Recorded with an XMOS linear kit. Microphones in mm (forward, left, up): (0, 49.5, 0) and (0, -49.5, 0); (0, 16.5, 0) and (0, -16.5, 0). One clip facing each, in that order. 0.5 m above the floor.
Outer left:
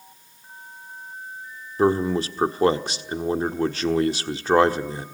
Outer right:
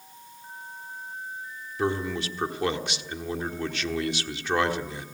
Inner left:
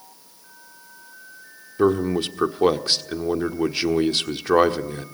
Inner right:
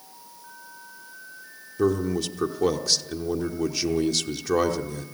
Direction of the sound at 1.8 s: 35° left (ahead or behind).